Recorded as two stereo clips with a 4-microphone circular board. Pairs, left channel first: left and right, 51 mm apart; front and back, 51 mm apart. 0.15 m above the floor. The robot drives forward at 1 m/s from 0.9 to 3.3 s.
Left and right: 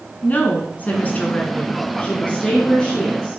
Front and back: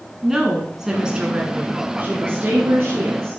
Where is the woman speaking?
110° left, 1.9 m; by 3.4 s 160° left, 3.5 m.